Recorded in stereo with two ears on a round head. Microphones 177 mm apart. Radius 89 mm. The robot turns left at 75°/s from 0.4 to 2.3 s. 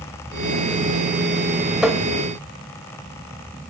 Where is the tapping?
5° right (ahead or behind), 0.9 m; by 2.0 s 10° left (ahead or behind), 0.9 m.